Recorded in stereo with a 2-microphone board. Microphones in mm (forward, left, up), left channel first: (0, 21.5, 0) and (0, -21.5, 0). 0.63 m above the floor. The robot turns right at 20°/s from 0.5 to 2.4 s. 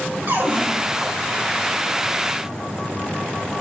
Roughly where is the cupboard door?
Right.